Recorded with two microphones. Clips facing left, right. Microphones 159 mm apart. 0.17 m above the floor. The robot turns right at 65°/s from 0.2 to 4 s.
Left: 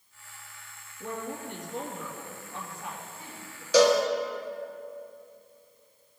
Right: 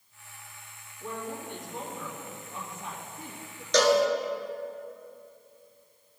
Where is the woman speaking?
90° left, 3 m; by 3.6 s 100° right, 3 m.